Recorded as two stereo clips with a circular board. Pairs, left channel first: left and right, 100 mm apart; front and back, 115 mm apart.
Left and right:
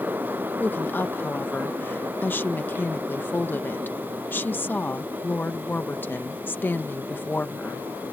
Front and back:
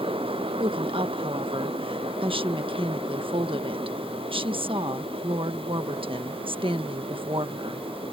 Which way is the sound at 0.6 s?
155° left.